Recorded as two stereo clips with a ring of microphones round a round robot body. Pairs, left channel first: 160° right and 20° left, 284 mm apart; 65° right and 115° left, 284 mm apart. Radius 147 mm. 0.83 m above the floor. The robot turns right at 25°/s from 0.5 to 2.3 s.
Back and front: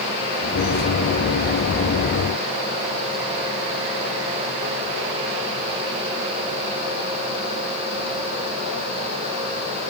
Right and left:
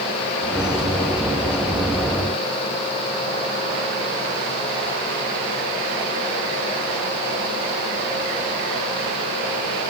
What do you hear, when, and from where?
Only background noise.